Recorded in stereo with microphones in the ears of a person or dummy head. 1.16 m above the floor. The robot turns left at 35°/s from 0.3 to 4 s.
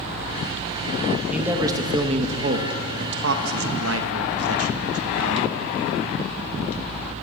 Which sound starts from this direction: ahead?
A man speaking, at 1.3 s.